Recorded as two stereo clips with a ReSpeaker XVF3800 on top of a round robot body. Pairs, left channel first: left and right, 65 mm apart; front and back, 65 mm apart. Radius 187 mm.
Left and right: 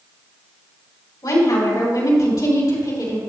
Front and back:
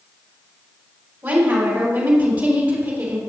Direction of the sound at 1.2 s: 110° left.